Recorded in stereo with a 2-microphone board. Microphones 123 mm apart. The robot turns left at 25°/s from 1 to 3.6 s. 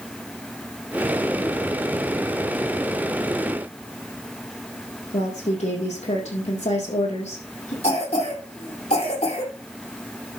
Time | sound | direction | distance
5.1 | a woman speaking | 75° left (ahead or behind) | 5 m
7.8 | a cough | 65° left (ahead or behind) | 4 m